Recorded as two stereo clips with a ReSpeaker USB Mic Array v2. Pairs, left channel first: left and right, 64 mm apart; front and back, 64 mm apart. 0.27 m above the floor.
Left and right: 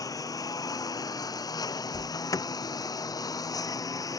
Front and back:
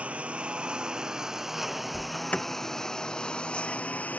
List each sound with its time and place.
0.0 s a lawn mower: 110° left; by 4.2 s 65° left
1.9 s an alarm: 70° left